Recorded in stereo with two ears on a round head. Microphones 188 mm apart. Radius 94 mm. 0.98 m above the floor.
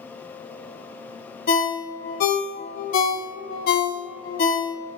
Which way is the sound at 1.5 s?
45° left (ahead or behind).